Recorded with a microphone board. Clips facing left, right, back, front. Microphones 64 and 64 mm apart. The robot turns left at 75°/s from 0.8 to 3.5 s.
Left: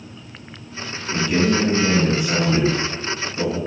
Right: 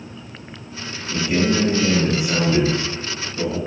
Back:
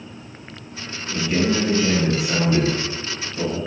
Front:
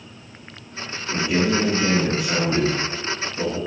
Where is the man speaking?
40° right, 1.1 m; by 3.6 s 140° left, 1.1 m.